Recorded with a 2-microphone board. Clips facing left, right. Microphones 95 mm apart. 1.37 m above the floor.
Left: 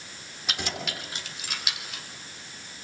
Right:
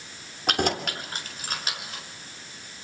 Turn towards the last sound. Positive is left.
turn(degrees=-35)  # may be behind; listen again after turning